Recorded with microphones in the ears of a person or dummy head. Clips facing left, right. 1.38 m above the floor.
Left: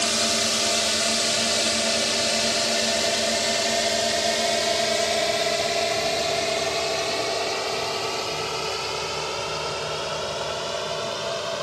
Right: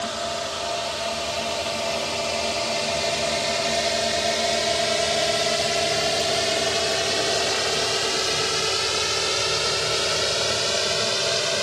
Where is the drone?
45° left (ahead or behind); by 11.6 s 30° right (ahead or behind).